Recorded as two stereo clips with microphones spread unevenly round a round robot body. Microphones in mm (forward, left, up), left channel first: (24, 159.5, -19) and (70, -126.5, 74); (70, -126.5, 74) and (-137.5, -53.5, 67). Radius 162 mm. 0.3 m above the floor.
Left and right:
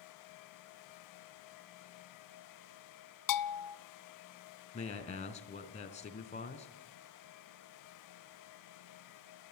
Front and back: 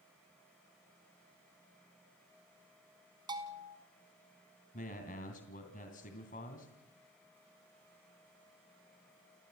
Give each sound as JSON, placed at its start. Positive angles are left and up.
{"t": 3.3, "sound": "a bell", "azimuth_deg": 85, "distance_m": 0.7}
{"t": 4.7, "sound": "a man speaking", "azimuth_deg": 40, "distance_m": 3.0}